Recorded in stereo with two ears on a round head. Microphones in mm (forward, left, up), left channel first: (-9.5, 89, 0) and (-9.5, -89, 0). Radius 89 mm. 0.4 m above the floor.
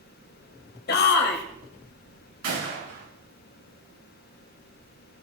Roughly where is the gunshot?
Right.